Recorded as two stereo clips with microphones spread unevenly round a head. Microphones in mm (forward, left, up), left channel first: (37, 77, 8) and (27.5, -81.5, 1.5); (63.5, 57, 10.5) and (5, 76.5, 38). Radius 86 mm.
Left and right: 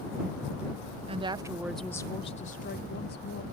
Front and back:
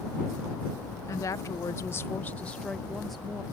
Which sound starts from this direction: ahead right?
A woman speaking, at 1.1 s.